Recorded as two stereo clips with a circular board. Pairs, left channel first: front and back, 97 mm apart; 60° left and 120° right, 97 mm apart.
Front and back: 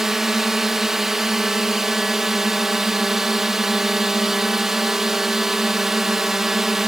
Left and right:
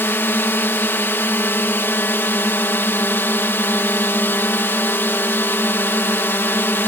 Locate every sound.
0.0 s a drone: 100° left